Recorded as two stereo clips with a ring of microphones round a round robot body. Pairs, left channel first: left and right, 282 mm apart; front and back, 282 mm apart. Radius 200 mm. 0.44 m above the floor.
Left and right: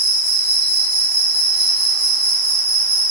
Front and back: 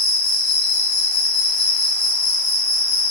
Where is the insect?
20° right, 1.3 m.